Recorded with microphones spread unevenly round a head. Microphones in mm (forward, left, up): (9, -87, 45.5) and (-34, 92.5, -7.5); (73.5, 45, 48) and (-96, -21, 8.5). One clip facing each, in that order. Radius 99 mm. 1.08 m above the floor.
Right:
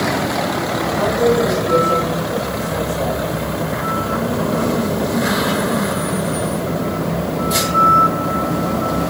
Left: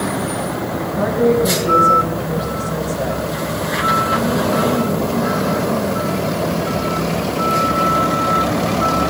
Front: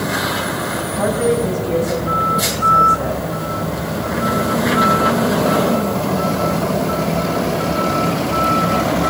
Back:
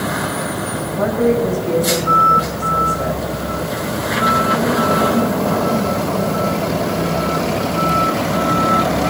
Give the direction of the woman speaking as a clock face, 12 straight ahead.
7 o'clock.